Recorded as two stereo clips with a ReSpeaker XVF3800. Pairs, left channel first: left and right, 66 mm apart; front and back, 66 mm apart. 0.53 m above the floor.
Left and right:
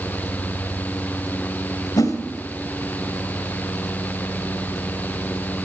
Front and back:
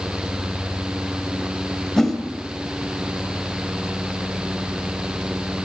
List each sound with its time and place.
2.0 s a whoosh: 85° left, 2.5 m